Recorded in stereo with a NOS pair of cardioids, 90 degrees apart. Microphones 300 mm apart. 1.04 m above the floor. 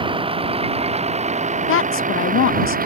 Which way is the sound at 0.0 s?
15° right.